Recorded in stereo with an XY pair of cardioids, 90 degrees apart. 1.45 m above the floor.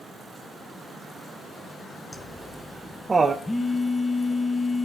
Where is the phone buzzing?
20° left, 1.3 m.